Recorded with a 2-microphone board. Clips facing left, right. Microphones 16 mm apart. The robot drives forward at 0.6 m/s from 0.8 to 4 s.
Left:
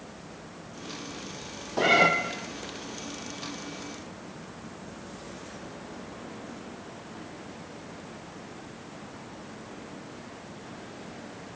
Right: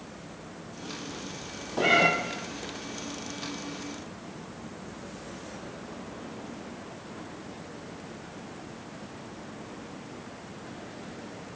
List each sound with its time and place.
1.8 s a cat meowing: 15° left (ahead or behind), 1.0 m